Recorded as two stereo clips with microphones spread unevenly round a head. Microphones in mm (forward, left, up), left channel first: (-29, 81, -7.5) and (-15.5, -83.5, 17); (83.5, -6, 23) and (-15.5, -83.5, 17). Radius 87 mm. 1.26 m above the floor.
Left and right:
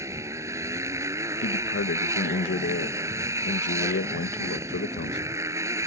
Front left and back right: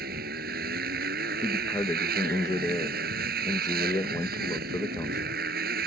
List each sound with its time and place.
0.0 s a motorcycle: 160° right
1.4 s a man speaking: 110° left